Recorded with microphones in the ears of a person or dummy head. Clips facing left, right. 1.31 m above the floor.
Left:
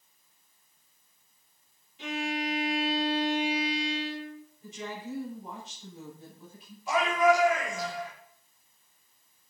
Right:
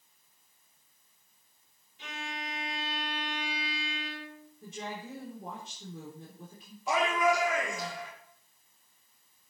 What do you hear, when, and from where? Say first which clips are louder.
2.0 s a violin: left 10 dB; 65° left (ahead or behind), 2 m
4.6 s a woman speaking: left 1 dB; 55° right (ahead or behind), 3.5 m
6.9 s a shout: left 3 dB; 80° right, 4 m